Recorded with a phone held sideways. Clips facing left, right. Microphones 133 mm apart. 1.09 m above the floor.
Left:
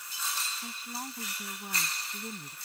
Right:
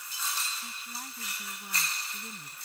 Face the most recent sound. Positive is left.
turn(degrees=30)  # may be behind; listen again after turning